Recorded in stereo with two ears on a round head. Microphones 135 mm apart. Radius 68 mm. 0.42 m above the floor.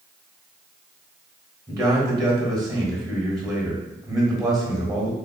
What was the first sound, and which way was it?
A man speaking, 25° right (ahead or behind).